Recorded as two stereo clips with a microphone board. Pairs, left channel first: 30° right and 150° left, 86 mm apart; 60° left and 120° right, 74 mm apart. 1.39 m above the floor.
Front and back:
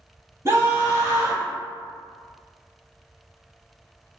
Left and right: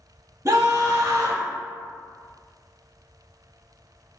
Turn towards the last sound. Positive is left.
turn(degrees=-165)